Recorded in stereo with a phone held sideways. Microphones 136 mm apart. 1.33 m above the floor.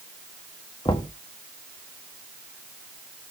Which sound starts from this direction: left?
Knocking, at 0.8 s.